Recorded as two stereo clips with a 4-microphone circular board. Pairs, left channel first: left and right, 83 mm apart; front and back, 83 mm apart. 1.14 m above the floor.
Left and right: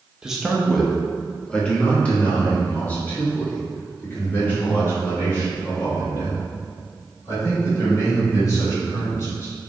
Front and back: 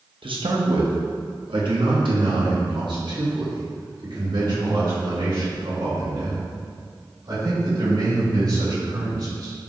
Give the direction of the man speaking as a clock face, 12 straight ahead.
6 o'clock.